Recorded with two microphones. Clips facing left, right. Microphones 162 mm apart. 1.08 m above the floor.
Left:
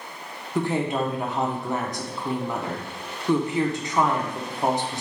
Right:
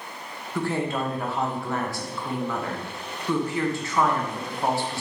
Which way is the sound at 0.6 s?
20° left (ahead or behind).